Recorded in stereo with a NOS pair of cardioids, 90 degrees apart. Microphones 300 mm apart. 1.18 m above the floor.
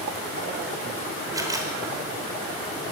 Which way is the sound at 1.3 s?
10° right.